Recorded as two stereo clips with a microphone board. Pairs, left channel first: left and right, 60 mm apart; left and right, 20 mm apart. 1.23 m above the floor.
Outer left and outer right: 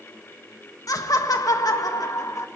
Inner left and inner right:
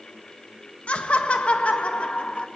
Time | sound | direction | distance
0.9 | laughter | 75° left (ahead or behind) | 1.5 m